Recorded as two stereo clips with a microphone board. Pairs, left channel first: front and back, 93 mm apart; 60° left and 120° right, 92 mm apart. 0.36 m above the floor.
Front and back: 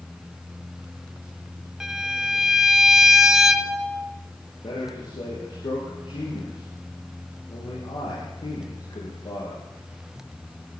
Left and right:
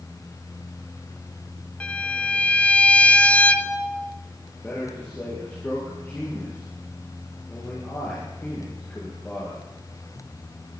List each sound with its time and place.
1.8 s a violin: 105° left, 0.8 m
4.6 s a man speaking: 10° right, 6.5 m